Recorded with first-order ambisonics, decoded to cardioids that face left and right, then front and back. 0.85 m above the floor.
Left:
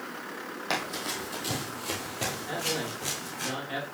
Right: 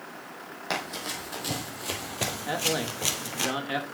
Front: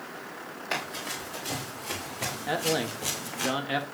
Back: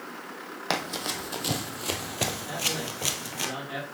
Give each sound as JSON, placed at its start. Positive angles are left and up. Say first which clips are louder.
{"t": 0.7, "sound": "running footsteps", "louder": "even, back 3 dB", "azimuth_deg": 180, "distance_m": 1.9}
{"t": 2.5, "sound": "a man speaking", "louder": "right 6 dB, front 2 dB", "azimuth_deg": -40, "distance_m": 1.1}